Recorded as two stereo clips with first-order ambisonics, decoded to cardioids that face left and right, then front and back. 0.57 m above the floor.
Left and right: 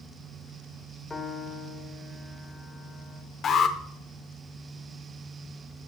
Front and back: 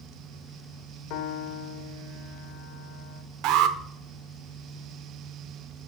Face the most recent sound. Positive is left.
turn(degrees=150)